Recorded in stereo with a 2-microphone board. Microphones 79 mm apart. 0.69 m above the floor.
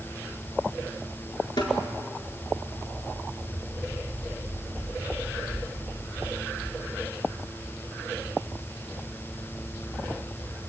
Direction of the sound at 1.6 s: 75° left (ahead or behind).